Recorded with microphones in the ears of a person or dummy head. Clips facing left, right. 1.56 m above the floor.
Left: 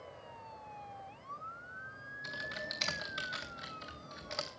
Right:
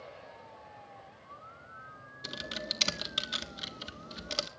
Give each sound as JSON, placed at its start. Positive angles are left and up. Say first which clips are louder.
{"t": 2.2, "sound": "typing on a keyboard", "louder": "right 4 dB", "side_deg": -50, "distance_m": 1.4}